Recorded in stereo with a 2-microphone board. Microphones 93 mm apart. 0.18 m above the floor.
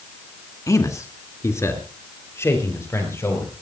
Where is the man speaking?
35° left (ahead or behind), 2 m; by 3.5 s 25° left (ahead or behind), 6 m.